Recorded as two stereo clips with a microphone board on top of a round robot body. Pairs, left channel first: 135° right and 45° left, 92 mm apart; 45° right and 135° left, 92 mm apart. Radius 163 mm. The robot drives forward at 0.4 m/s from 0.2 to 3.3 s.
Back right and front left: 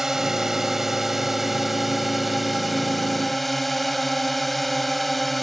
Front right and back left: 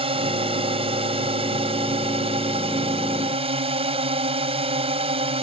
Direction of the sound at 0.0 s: 130° left.